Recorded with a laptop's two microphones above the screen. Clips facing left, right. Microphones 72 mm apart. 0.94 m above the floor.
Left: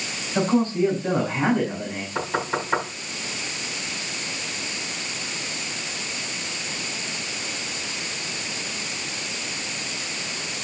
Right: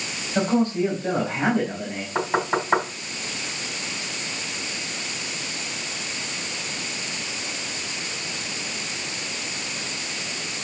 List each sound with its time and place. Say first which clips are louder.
0.3 s a man speaking: left 1 dB; 15° right (ahead or behind), 4.5 m
2.1 s knocking: right 3 dB; 35° right (ahead or behind), 4.5 m